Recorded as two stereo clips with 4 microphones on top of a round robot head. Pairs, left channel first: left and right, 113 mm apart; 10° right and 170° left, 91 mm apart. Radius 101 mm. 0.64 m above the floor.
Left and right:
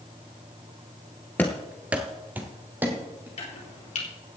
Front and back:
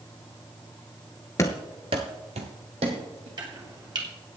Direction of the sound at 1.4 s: 15° left.